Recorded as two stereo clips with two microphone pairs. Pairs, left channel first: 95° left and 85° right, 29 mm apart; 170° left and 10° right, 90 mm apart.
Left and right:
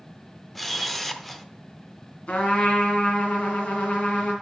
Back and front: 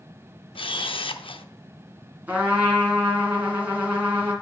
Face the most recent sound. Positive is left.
turn(degrees=60)